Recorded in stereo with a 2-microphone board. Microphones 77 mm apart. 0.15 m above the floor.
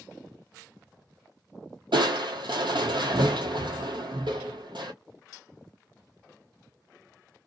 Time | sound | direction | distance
1.9 | crushing | 80° right | 0.8 m